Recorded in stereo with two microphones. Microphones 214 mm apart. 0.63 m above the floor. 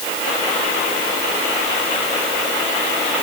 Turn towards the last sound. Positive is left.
No sound to turn to.